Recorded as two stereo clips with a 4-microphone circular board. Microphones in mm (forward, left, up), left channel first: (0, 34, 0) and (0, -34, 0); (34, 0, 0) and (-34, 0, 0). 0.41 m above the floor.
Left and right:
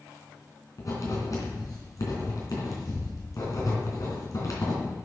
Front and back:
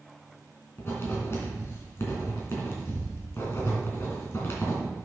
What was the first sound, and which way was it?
Writing, 50° left.